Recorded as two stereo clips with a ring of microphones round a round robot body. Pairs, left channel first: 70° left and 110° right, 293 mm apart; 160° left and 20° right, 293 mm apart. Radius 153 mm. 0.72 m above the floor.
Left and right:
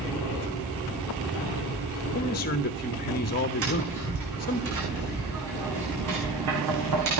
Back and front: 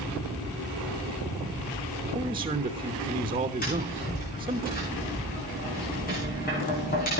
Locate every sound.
2.1 s a man speaking: 40° left, 1.0 m
3.6 s tapping: 140° right, 8.5 m